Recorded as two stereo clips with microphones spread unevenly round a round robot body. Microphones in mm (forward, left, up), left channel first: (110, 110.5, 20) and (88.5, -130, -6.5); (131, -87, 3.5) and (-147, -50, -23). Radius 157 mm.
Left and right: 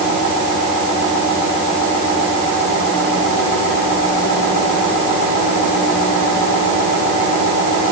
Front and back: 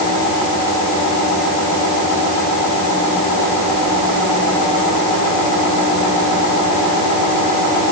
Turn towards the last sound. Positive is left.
No sound to turn to.